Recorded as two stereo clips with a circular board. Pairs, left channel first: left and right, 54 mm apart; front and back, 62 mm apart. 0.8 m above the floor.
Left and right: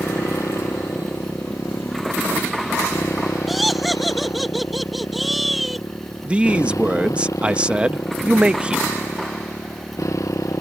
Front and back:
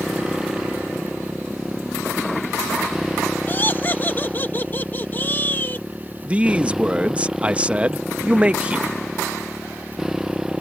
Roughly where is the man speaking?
Behind right.